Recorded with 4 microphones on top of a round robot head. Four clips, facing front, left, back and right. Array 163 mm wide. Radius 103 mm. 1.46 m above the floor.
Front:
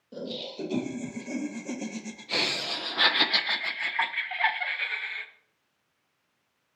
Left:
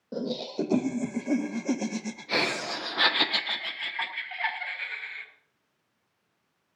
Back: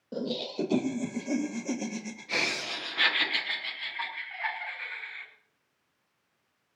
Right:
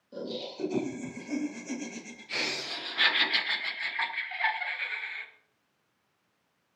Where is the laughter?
120° left, 2.5 m; by 5.3 s 5° left, 2.0 m.